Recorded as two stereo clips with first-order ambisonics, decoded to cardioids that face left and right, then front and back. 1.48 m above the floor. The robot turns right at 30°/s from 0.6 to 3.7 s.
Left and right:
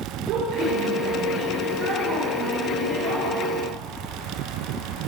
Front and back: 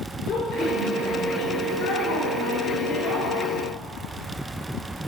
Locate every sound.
0.3 s a woman speaking: 55° right, 6.5 m; by 3.4 s 30° left, 6.5 m